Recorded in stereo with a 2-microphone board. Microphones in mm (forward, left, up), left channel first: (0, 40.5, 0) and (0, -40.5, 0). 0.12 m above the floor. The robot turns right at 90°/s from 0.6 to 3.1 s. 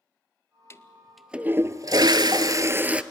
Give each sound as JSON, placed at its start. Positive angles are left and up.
{"t": 0.7, "sound": "a toilet flushing", "azimuth_deg": 135, "distance_m": 0.6}